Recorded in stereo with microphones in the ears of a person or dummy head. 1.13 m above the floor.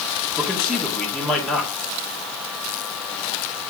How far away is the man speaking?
About 2 m.